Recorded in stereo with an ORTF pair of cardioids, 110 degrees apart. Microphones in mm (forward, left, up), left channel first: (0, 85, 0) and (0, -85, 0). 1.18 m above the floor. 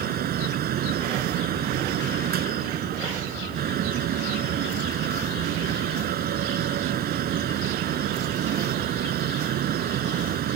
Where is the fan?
65° right.